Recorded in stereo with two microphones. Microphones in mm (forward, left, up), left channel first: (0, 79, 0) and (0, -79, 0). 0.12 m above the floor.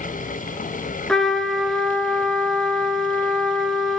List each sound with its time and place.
1.1 s a trumpet: 5° left (ahead or behind), 1.8 m